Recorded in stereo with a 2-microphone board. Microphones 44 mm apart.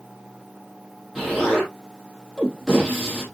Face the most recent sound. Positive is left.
turn(degrees=0)  # may be behind; listen again after turning